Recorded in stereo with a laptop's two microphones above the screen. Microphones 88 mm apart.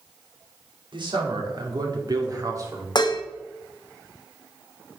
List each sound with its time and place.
0.9 s a man speaking: 65° right (ahead or behind), 2 m; by 2.9 s 35° right (ahead or behind), 2.0 m
3.0 s dishes clattering: 55° left (ahead or behind), 0.6 m